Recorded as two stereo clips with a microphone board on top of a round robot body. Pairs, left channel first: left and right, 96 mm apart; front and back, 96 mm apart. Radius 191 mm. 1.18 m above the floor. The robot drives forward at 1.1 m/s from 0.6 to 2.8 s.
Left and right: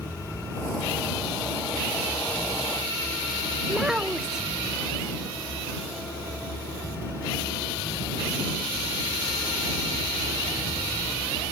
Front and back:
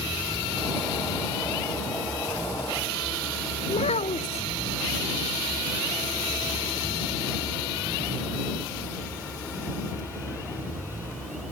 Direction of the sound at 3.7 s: 5° right.